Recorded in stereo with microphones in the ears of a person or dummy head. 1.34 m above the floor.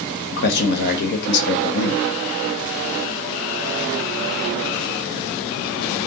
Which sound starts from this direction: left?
A man speaking, at 0.3 s.